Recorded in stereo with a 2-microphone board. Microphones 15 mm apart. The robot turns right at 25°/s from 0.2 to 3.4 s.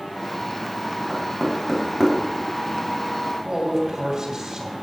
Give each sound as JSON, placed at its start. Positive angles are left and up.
{"t": 1.1, "sound": "knocking", "side_deg": 0, "distance_m": 3.0}
{"t": 3.5, "sound": "a man speaking", "side_deg": -40, "distance_m": 3.5}